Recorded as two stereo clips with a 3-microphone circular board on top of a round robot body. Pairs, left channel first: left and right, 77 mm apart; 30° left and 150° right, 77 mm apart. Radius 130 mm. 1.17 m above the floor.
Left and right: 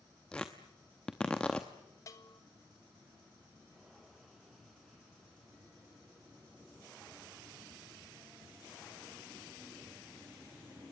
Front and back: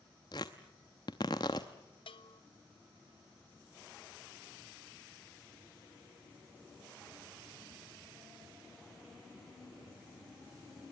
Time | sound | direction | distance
0.3 | tearing paper | 10° left | 0.6 m
2.1 | a bell | 40° left | 1.6 m